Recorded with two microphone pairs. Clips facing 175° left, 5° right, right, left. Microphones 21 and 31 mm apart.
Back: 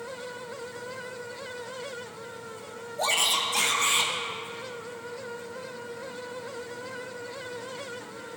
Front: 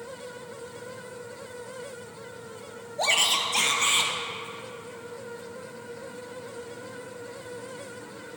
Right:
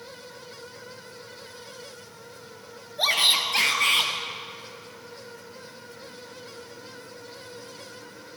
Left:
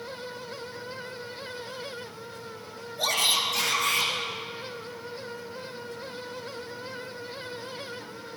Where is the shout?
50° right, 1.5 m; by 4.1 s 80° right, 2.5 m.